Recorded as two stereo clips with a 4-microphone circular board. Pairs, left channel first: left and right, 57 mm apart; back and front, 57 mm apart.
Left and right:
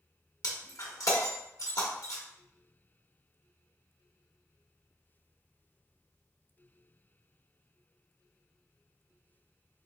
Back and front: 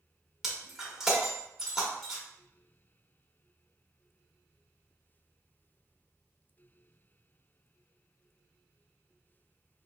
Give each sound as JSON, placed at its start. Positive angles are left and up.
{"t": 0.4, "sound": "breaking glass", "azimuth_deg": 85, "distance_m": 1.1}